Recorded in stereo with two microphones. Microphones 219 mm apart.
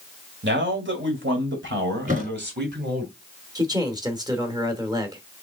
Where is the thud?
35° right (ahead or behind), 2.5 m.